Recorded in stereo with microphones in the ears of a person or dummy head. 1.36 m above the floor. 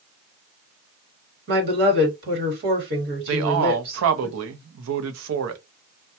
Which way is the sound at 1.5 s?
65° right (ahead or behind).